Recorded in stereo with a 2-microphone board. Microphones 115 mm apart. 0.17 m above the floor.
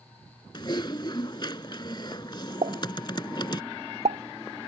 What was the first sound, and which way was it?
Typing on a keyboard, 40° left (ahead or behind).